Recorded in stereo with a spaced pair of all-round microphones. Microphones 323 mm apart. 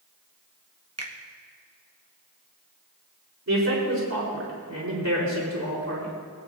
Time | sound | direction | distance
1.0 | a finger snap | 50° right (ahead or behind) | 1.3 m
3.5 | a man speaking | 55° right (ahead or behind) | 4 m